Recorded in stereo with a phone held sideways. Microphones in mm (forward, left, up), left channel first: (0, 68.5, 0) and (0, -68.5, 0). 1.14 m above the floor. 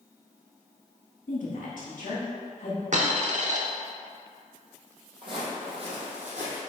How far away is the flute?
I don't hear a flute.